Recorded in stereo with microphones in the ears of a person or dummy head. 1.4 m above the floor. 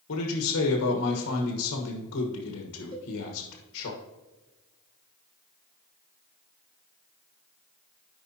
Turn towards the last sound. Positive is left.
turn(degrees=-80)